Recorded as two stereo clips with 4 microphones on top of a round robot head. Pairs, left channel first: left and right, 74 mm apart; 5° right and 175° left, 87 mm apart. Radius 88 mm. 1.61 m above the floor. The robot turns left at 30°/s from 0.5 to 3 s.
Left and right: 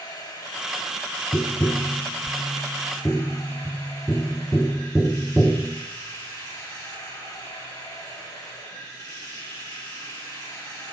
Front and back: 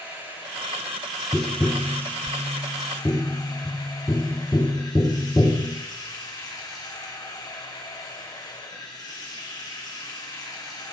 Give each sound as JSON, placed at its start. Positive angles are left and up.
{"t": 0.0, "sound": "running water", "azimuth_deg": 110, "distance_m": 3.5}
{"t": 1.3, "sound": "tapping", "azimuth_deg": 65, "distance_m": 0.7}